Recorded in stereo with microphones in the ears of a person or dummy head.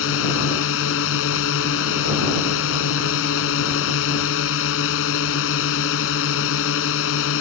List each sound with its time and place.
0.0 s a drone: 75° left (ahead or behind)